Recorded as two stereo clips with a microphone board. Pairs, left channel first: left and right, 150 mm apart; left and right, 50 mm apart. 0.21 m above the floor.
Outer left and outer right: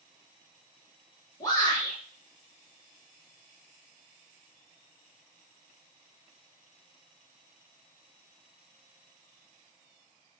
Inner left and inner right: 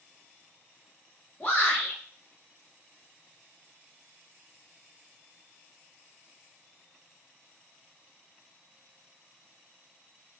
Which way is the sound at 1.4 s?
25° left (ahead or behind).